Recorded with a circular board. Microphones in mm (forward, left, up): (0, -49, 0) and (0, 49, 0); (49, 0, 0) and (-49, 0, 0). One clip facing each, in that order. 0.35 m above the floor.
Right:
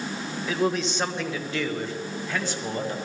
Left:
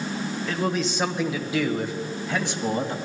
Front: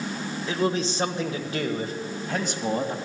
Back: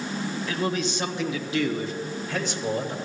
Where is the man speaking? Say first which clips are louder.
Right 2 dB, front 3 dB; 10° right, 1.0 m; by 3.0 s 25° left, 2 m.